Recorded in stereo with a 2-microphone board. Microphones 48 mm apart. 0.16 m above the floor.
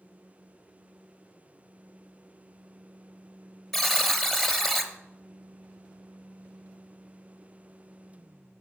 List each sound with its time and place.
3.7 s a buzzer: 5° left (ahead or behind), 0.8 m